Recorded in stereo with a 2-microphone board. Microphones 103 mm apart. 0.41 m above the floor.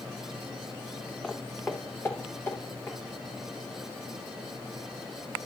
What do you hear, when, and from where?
1.2 s footsteps: 10° left (ahead or behind), 1.0 m; by 3.0 s 25° left (ahead or behind), 3 m